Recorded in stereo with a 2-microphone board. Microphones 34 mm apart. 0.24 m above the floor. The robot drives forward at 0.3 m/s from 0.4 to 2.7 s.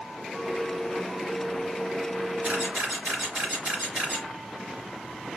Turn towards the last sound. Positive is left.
turn(degrees=-55)  # may be behind; listen again after turning